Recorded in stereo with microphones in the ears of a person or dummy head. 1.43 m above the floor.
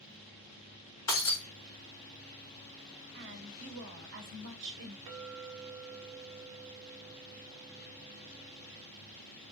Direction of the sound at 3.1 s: 65° right (ahead or behind).